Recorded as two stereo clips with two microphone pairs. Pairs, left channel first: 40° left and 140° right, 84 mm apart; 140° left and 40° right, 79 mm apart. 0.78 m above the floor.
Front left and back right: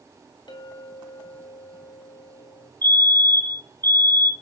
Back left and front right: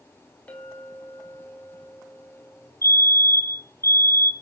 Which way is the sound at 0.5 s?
70° left.